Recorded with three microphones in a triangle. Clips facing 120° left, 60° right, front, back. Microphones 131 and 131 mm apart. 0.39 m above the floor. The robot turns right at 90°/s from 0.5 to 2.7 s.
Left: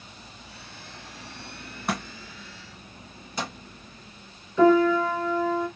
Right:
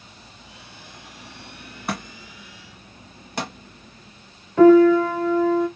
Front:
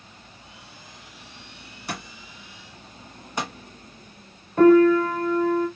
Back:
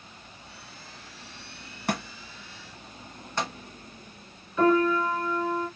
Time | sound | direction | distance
1.9 | a thud | 150° right | 1.6 m
4.6 | a piano | 35° right | 1.5 m